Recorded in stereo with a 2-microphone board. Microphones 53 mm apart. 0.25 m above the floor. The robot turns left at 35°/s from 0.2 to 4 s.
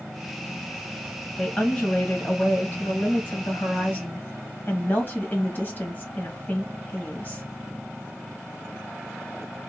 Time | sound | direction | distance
1.4 | a woman speaking | 165° left | 1.6 m